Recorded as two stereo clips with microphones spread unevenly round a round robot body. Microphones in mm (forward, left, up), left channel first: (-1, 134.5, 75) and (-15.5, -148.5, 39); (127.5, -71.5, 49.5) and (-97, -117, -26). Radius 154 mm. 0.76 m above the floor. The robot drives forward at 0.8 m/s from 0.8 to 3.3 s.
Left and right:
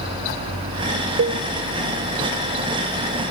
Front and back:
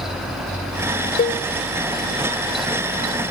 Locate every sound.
1.2 s a cowbell: 50° right, 1.1 m; by 1.4 s 60° right, 1.0 m